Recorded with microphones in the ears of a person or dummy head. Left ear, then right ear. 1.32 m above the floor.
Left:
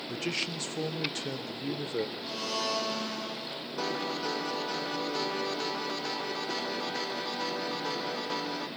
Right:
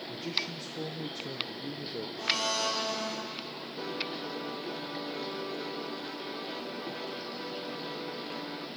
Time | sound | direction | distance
0.1 | a man speaking | 40° left (ahead or behind) | 0.7 m
2.2 | a blender | 45° right (ahead or behind) | 4.5 m
3.8 | a piano | 30° left (ahead or behind) | 0.6 m